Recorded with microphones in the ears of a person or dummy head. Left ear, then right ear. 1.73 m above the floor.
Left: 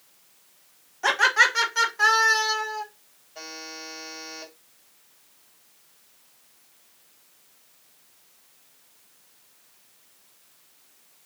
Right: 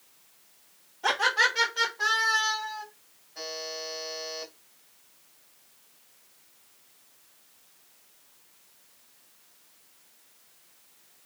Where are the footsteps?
No footsteps in this recording.